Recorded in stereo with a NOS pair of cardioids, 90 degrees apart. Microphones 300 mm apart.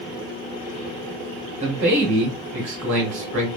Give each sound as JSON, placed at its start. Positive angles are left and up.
{"t": 1.6, "sound": "a man speaking", "azimuth_deg": -60, "distance_m": 1.7}